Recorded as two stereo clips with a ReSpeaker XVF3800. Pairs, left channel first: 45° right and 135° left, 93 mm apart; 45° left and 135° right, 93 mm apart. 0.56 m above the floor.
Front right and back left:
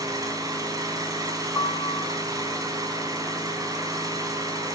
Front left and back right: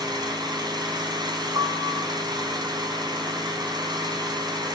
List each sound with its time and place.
0.0 s an engine running: 175° right, 4 m
1.6 s a piano: 100° right, 1.7 m